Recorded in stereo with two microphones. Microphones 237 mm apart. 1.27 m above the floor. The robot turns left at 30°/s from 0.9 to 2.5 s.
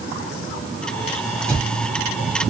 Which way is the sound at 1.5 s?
5° left (ahead or behind).